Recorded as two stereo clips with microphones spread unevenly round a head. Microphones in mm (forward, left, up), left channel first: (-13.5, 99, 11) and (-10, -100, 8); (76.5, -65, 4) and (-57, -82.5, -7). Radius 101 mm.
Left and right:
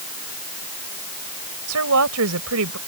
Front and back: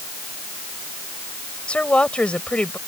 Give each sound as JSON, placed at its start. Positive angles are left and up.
{"t": 1.7, "sound": "a woman speaking", "azimuth_deg": -75}